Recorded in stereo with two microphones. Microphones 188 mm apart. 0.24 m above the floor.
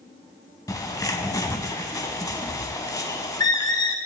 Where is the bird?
20° left (ahead or behind), 0.5 m.